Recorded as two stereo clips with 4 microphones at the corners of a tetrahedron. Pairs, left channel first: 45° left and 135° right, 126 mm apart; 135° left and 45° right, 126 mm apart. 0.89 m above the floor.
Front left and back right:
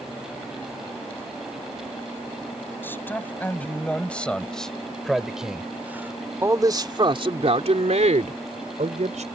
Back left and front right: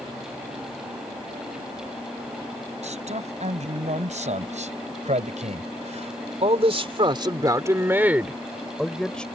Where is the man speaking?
25° right; by 9.3 s 145° right.